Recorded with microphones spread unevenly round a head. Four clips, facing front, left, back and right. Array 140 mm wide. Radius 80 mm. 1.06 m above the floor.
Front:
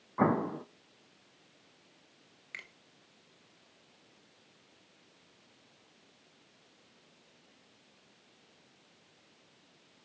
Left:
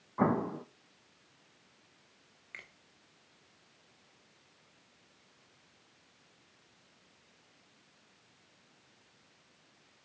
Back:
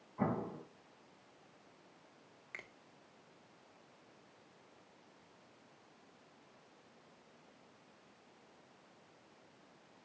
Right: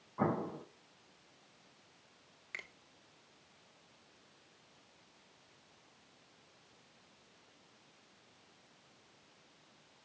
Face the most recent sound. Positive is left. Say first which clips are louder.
# right 3 dB, front 3 dB
turn(degrees=-160)